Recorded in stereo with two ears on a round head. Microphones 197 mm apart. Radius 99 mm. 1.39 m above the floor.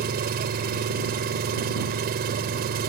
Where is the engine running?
45° right (ahead or behind).